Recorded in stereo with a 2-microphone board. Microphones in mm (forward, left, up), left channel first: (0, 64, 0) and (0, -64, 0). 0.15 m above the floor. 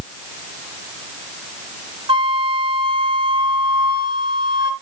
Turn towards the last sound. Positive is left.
turn(degrees=-40)  # may be behind; listen again after turning